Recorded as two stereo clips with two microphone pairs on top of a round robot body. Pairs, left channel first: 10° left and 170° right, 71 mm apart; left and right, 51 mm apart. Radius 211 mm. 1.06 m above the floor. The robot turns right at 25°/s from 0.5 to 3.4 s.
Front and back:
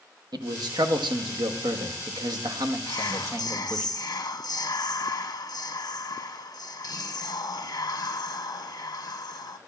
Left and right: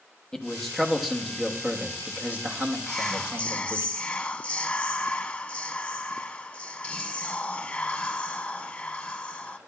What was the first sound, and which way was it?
A man speaking, 165° left.